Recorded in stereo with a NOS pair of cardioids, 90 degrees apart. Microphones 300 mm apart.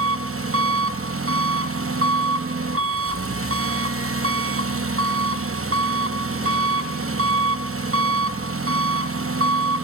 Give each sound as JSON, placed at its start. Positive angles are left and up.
{"t": 0.0, "sound": "an engine running", "azimuth_deg": -50, "distance_m": 0.8}